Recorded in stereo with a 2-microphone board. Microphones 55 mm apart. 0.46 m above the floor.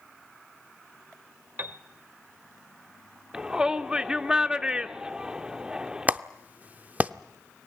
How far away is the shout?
About 0.8 m.